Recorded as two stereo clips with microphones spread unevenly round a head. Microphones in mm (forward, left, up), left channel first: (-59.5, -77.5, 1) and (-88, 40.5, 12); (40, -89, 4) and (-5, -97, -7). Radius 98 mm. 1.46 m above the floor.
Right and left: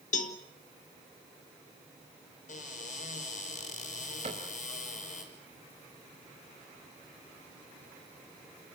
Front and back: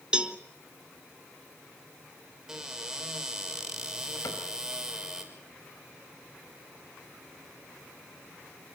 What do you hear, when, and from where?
0.1 s a cowbell: 95° right, 2 m
2.5 s a cupboard door: 90° right, 6 m
4.2 s a cupboard door: 45° left, 4.5 m